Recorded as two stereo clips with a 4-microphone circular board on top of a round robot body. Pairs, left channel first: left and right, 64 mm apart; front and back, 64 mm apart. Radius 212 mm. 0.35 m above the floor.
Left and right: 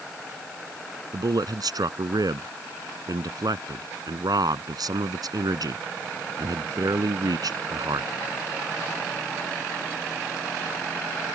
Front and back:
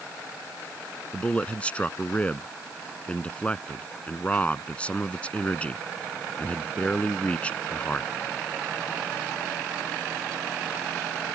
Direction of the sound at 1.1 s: 75° right.